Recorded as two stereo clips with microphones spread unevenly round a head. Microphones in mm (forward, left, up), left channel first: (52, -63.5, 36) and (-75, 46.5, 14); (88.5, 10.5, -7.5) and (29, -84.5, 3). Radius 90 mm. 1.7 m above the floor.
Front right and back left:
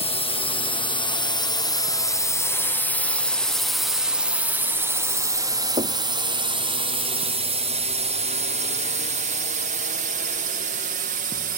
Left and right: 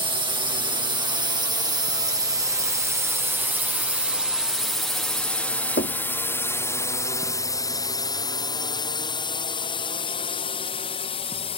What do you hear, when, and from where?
0.0 s a drone: 90° right; by 11.6 s 105° left
5.8 s knocking: 75° left